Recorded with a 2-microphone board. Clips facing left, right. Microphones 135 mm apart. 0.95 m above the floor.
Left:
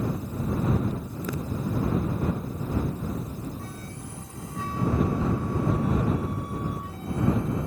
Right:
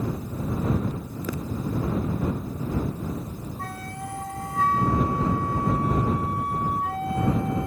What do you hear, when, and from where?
3.6 s a flute: 75° right (ahead or behind)